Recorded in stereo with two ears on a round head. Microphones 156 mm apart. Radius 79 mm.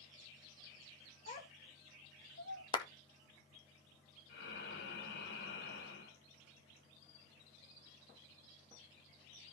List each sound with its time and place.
1.3 s a child speaking: 35° left (ahead or behind), 1.3 m; by 2.6 s 70° left (ahead or behind), 2.5 m
2.7 s a clap: 30° left (ahead or behind), 1.8 m
4.3 s breathing: 65° left (ahead or behind), 2.5 m